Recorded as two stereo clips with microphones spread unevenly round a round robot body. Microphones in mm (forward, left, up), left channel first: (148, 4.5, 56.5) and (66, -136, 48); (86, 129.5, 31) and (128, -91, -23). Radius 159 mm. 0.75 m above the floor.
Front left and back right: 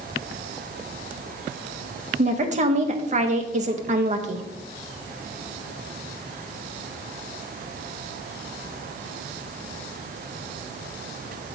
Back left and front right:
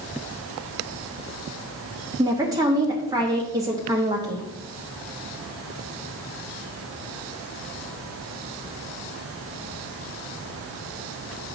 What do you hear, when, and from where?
2.2 s a woman speaking: 135° right, 0.7 m